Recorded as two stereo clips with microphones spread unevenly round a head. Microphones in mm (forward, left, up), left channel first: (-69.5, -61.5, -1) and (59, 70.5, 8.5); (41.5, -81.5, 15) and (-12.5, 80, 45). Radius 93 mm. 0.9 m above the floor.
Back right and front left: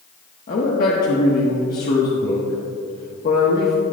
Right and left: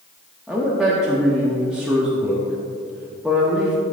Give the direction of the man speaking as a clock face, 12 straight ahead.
5 o'clock.